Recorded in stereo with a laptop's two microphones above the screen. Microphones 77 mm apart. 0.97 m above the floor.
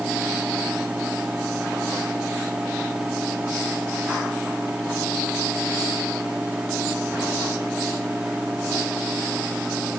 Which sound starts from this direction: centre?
A fan, at 0.0 s.